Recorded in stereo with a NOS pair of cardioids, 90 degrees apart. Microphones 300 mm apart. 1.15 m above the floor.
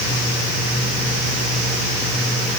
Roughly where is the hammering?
I don't hear hammering.